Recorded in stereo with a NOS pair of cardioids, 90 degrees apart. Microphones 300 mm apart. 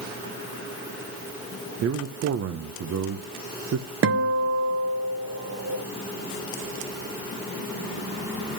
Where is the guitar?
45° right, 1.6 m.